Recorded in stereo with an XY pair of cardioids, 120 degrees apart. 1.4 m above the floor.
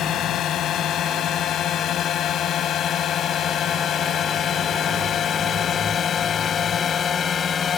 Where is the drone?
60° left; by 7.8 s 40° left.